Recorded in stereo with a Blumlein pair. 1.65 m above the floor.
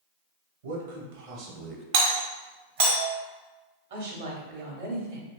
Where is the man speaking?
60° right, 1.2 m; by 1.8 s 10° right, 0.5 m.